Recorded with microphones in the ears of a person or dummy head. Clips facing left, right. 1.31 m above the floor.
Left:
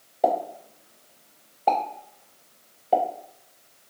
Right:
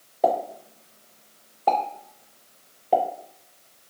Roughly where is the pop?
Centre.